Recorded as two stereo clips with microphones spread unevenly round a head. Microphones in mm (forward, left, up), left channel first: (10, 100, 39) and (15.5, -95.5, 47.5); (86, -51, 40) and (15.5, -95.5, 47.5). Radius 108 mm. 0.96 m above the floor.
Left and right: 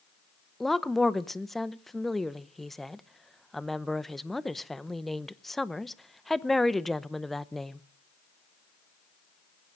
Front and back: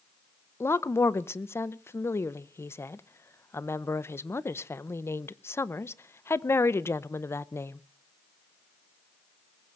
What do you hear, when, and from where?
0.6 s a woman speaking: 5° left, 0.7 m